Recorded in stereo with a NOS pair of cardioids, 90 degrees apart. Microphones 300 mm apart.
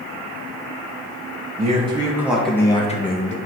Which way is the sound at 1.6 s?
25° right.